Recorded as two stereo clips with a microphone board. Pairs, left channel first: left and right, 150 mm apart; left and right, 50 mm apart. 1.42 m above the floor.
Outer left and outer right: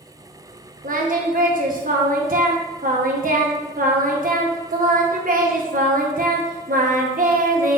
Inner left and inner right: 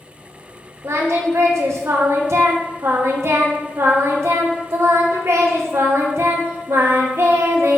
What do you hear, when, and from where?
0.8 s singing: 65° right (ahead or behind), 0.6 m